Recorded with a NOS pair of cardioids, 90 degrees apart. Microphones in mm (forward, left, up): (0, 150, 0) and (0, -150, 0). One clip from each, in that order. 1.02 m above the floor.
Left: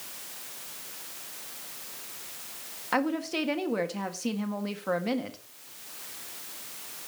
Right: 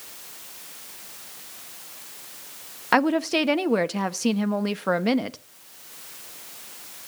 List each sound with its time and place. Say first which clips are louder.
2.9 s a woman speaking: right 8 dB; 45° right, 1.2 m